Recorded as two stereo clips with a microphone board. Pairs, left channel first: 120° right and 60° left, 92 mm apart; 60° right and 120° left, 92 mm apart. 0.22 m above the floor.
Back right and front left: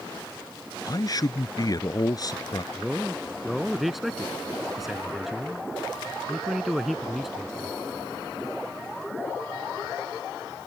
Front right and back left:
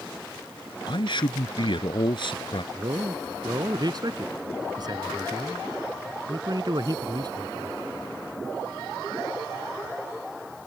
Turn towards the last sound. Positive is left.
turn(degrees=145)